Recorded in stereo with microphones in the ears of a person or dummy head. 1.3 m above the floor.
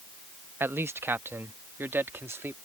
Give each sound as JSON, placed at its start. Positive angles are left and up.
{"t": 0.6, "sound": "a man speaking", "side_deg": -5}